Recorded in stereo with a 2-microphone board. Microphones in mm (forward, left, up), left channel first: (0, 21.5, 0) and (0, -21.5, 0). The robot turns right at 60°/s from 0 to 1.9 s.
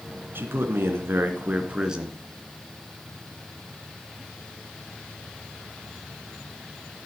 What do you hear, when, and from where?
0.3 s a man speaking: 110° right, 2 m; by 2.2 s 20° right, 2 m